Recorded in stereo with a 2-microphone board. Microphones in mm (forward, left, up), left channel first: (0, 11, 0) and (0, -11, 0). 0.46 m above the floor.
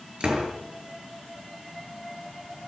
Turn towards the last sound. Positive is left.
turn(degrees=-50)  # may be behind; listen again after turning